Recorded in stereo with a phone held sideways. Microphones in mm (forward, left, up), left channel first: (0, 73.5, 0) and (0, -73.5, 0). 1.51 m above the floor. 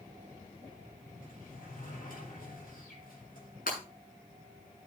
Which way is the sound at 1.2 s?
80° left.